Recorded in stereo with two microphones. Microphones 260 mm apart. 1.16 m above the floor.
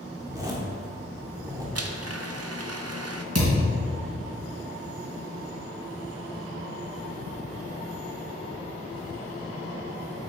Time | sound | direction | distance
0.2 | a zipper | 15° right (ahead or behind) | 1.5 m
1.8 | a blender | 65° right (ahead or behind) | 0.6 m
3.4 | a thud | 75° right (ahead or behind) | 3 m